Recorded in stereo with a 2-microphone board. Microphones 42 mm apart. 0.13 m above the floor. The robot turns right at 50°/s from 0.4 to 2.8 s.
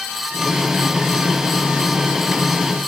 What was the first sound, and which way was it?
Only background noise.